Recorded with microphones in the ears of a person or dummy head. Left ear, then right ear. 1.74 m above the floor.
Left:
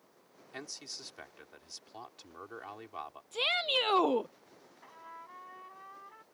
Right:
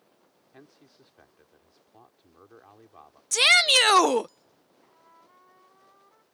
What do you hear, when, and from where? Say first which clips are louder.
0.5 s a man speaking: left 12 dB; 80° left
3.3 s a shout: right 12 dB; 60° right (ahead or behind)
4.8 s a trumpet: left 9 dB; 85° left